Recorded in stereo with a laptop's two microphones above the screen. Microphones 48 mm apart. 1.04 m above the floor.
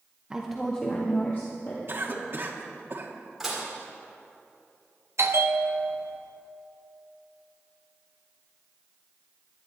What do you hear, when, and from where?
0.3 s a woman speaking: 20° right (ahead or behind), 0.8 m; by 1.8 s 55° left (ahead or behind), 1.9 m
1.9 s a cough: 50° right (ahead or behind), 1.5 m
3.4 s dishes clattering: 5° right (ahead or behind), 2.5 m
5.2 s a bell: 65° right (ahead or behind), 0.9 m